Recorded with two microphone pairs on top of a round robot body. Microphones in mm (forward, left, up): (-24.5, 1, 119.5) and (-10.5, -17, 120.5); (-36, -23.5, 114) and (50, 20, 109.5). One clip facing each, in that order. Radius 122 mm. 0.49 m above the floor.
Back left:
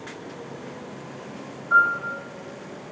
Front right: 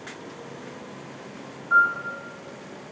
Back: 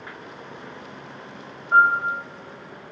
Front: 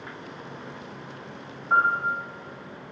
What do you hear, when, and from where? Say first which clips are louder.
1.7 s a piano: back left 1 dB, back 5 dB; 25° left, 0.9 m